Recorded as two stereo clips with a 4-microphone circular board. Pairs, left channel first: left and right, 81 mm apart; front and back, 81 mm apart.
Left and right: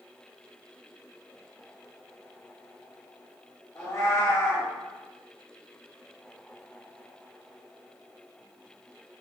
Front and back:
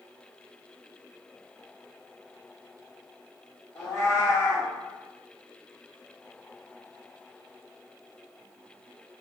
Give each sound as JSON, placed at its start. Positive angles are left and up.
{"t": 3.8, "sound": "a cat meowing", "azimuth_deg": 45, "distance_m": 1.2}